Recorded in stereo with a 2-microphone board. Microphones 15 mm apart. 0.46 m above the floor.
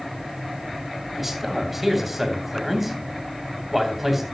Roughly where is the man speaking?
Centre.